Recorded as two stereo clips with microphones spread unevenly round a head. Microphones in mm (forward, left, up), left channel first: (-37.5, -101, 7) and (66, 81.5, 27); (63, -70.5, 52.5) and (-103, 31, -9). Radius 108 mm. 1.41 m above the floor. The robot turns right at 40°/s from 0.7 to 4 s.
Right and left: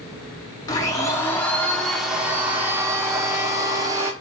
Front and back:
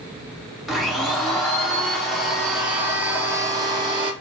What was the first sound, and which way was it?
A blender, 60° right.